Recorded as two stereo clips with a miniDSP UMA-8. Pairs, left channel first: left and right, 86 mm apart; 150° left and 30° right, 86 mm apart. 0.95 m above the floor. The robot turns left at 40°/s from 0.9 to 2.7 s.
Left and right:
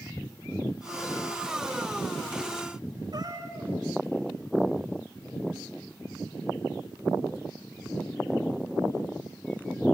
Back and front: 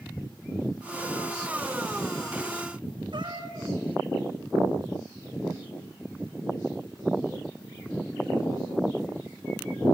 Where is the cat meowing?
50° right, 6.5 m.